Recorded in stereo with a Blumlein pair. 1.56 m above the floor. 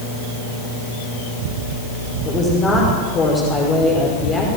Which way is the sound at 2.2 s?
25° left.